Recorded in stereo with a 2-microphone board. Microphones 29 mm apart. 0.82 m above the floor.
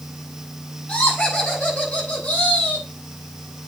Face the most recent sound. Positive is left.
turn(degrees=65)  # may be behind; listen again after turning